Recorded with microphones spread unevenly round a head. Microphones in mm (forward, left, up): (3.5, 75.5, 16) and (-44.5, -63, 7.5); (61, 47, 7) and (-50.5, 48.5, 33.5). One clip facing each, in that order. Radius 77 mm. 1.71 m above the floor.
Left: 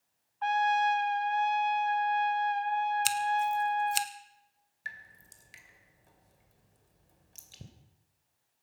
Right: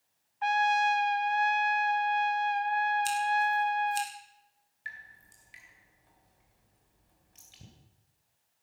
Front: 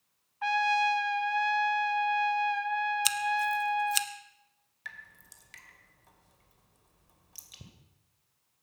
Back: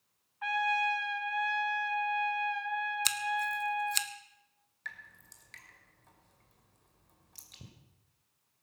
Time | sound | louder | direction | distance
0.4 | a trumpet | even, front 4 dB | 40° right | 0.7 m
3.0 | scissors | right 1 dB, front 5 dB | 80° left | 1.1 m
4.8 | dripping | left 1 dB, even | 90° left | 2 m